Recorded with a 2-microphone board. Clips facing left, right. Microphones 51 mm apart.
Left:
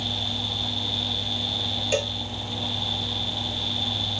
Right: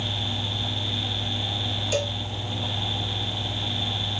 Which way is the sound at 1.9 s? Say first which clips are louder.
Left 1 dB; 35° left (ahead or behind).